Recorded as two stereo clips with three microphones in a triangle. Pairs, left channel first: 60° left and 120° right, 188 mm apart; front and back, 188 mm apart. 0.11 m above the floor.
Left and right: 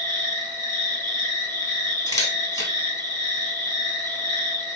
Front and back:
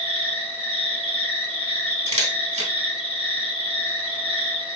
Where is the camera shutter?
125° left, 2.5 m.